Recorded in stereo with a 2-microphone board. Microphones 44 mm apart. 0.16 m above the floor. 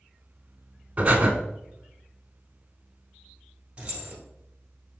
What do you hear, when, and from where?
1.0 s breathing: 35° right (ahead or behind), 0.7 m
3.8 s keys jangling: 25° right (ahead or behind), 1.6 m